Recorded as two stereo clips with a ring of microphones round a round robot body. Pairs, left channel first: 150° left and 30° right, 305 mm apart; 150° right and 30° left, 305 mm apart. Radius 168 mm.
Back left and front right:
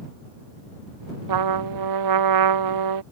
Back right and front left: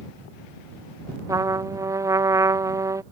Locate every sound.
1.3 s a trumpet: 50° right